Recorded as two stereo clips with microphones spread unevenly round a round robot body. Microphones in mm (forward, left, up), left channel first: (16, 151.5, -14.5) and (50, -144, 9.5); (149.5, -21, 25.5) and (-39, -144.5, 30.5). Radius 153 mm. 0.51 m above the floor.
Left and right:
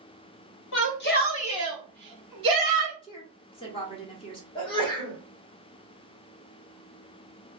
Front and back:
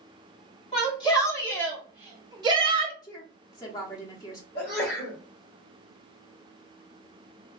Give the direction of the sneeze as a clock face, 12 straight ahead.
11 o'clock.